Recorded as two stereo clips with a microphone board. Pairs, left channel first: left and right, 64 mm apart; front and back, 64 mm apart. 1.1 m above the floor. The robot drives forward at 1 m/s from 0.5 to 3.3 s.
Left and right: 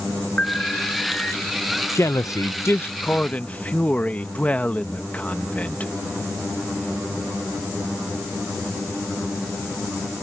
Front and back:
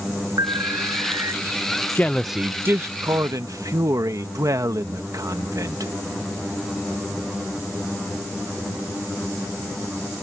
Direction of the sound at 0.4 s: 160° left.